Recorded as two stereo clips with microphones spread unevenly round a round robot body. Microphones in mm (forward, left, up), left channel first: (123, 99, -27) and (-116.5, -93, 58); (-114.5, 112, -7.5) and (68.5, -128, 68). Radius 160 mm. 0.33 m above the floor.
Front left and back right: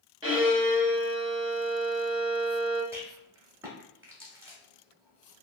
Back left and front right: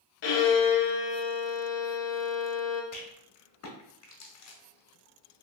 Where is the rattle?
125° left, 0.9 m.